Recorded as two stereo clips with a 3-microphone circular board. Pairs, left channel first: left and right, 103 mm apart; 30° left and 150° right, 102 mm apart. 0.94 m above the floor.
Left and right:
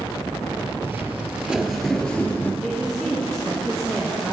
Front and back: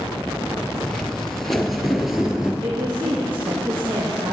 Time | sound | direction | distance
0.8 | footsteps | 45° right | 1.1 m
2.6 | a woman speaking | 175° left | 1.1 m